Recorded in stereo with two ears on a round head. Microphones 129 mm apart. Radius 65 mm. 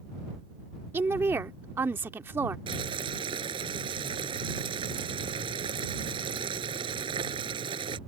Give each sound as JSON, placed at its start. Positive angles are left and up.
{"t": 0.9, "sound": "a woman speaking", "side_deg": -15}
{"t": 2.7, "sound": "boiling", "side_deg": -35}